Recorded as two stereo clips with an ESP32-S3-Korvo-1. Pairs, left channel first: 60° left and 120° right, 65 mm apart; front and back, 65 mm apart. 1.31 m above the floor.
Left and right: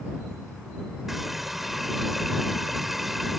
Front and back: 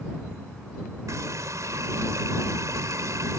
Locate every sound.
1.1 s a running tap: 155° left